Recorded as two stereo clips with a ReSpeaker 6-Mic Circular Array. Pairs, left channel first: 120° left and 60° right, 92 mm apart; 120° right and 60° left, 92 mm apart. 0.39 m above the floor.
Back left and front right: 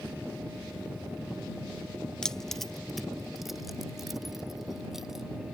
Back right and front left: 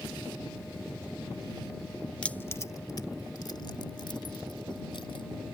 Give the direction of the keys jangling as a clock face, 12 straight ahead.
6 o'clock.